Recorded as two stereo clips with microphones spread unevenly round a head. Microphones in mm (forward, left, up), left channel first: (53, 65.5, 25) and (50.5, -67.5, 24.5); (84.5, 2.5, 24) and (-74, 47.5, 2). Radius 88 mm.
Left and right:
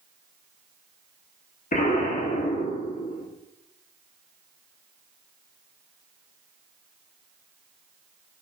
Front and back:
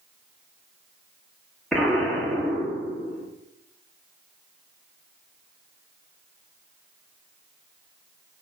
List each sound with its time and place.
1.7 s an explosion: 70° left, 2 m